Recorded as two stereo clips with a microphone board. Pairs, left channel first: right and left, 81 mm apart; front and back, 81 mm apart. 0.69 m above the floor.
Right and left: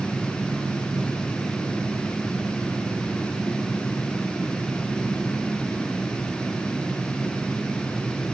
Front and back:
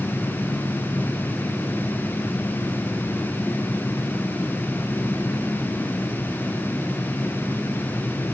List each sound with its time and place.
Only background noise.